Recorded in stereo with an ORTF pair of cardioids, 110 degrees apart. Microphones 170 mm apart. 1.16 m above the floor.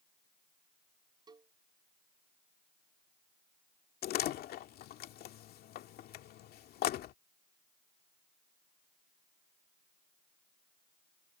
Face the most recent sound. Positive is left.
turn(degrees=65)